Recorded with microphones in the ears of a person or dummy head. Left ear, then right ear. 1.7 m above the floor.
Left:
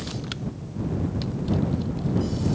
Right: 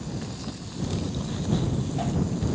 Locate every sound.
Only background noise.